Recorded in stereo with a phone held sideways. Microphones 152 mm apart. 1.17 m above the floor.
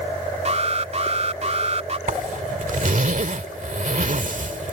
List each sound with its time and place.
0.5 s an alarm: 45° right (ahead or behind)
2.1 s a zipper: 60° right (ahead or behind)